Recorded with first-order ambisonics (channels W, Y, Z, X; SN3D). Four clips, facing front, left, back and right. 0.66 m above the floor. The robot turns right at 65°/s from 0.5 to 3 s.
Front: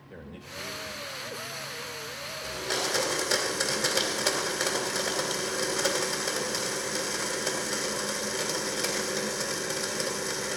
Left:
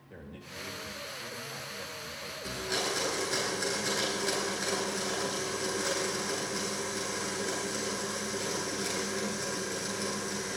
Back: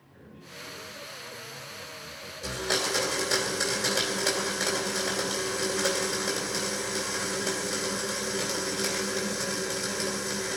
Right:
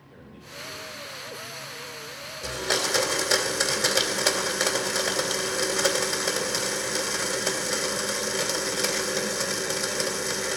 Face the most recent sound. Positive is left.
turn(degrees=-80)